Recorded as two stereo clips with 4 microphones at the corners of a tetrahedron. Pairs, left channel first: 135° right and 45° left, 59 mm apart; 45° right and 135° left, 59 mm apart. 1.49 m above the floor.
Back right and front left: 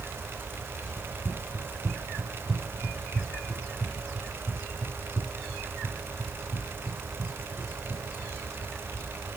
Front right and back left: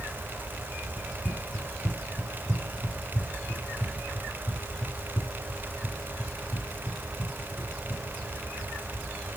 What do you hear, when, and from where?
1.0 s running footsteps: straight ahead, 2.5 m; by 9.1 s 75° right, 8 m